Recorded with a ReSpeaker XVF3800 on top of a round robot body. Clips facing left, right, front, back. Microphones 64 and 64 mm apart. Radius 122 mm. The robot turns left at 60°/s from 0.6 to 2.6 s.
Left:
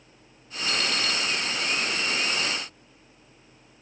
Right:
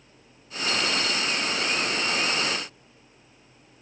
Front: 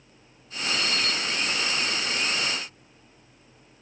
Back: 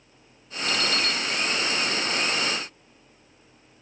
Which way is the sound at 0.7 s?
145° left.